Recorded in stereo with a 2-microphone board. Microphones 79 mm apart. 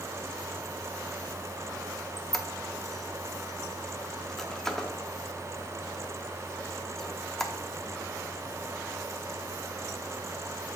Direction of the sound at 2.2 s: 5° left (ahead or behind).